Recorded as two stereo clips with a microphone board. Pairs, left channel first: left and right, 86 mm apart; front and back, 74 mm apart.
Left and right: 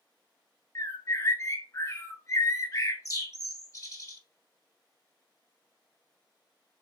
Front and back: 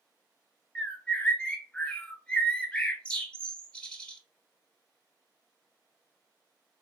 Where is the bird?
70° left, 0.6 m.